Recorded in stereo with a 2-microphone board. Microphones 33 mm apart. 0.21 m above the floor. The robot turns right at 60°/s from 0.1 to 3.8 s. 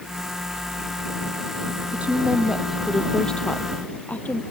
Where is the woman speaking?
50° right; by 4.4 s 60° left.